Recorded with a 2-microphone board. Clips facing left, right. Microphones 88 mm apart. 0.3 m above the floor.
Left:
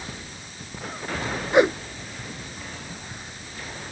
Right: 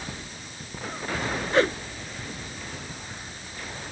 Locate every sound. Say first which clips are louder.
1.5 s a whoosh: left 4 dB; 20° left (ahead or behind)